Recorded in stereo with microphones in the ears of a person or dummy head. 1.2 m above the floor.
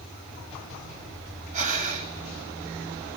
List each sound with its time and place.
1.5 s breathing: 40° right (ahead or behind), 2 m